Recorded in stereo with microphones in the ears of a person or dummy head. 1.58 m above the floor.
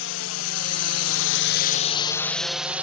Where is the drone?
65° left (ahead or behind); by 2.8 s 10° right (ahead or behind).